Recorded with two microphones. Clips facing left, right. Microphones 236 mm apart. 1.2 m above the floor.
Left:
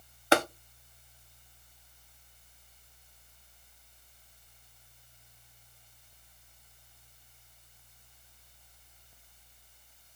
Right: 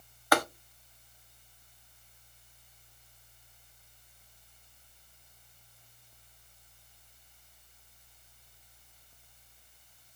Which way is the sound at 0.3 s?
25° left (ahead or behind).